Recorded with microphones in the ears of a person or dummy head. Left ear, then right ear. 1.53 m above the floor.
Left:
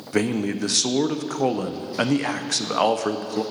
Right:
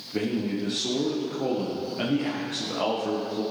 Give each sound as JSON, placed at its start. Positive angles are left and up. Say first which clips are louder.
{"t": 0.1, "sound": "a man speaking", "louder": "left 5 dB", "side_deg": 55, "distance_m": 0.6}